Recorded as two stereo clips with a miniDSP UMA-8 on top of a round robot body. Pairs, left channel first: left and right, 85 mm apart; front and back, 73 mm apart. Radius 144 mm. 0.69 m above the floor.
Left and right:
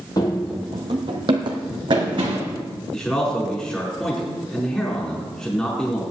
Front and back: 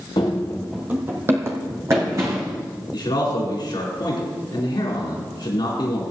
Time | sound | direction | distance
0.2 | running footsteps | 40° left | 0.9 m
2.9 | a man speaking | 10° left | 4.5 m